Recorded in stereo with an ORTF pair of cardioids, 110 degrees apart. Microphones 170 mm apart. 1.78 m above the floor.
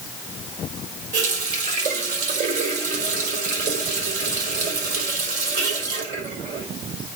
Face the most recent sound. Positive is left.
turn(degrees=-50)